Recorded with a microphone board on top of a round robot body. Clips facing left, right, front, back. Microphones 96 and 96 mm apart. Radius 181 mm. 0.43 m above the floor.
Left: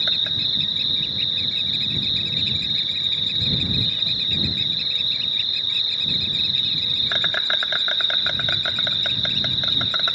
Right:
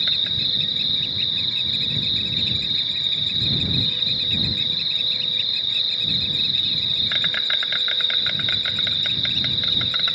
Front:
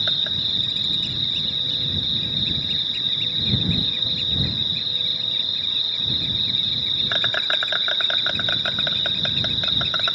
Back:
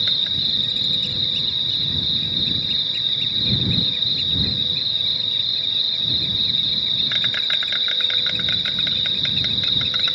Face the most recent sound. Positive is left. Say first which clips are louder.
# left 1 dB, front 1 dB
turn(degrees=40)